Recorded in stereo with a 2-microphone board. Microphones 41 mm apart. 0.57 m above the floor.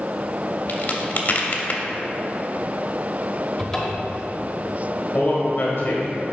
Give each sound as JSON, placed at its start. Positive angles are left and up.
{"t": 0.7, "sound": "a crack", "side_deg": 45, "distance_m": 0.8}
{"t": 3.6, "sound": "a cupboard door", "side_deg": 5, "distance_m": 1.0}
{"t": 5.1, "sound": "a man speaking", "side_deg": 40, "distance_m": 1.6}